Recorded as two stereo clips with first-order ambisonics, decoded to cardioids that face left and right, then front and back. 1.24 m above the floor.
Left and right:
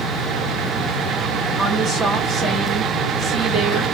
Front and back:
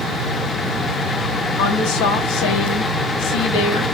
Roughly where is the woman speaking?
Ahead.